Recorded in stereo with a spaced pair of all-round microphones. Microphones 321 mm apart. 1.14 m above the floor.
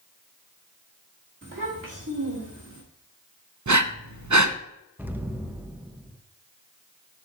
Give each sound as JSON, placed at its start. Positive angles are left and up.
{"t": 1.4, "sound": "a child speaking", "side_deg": -40, "distance_m": 1.6}
{"t": 3.7, "sound": "breathing", "side_deg": -65, "distance_m": 0.6}
{"t": 5.0, "sound": "an explosion", "side_deg": -5, "distance_m": 0.6}